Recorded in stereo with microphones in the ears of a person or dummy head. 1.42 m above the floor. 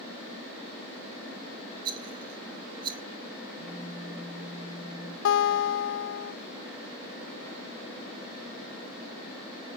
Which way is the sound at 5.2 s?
75° left (ahead or behind).